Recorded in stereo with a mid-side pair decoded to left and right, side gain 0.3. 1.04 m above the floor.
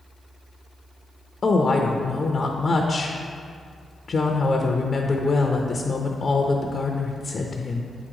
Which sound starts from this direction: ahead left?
A woman speaking, at 1.4 s.